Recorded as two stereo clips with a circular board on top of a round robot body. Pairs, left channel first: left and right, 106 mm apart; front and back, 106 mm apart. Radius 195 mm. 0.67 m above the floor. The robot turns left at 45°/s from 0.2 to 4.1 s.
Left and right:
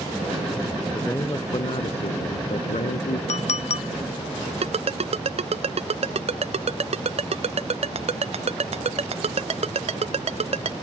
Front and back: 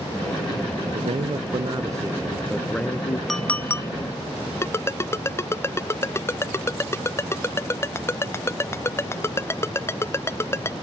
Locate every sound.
0.9 s a man speaking: 165° left; by 3.2 s 60° left
3.3 s a clink: 90° left; by 3.9 s 60° left
4.6 s a ringtone: 65° right